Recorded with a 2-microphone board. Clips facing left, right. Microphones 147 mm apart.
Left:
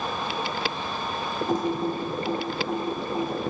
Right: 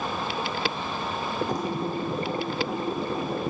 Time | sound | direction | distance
1.5 | typing on a keyboard | 25° left (ahead or behind) | 2.5 m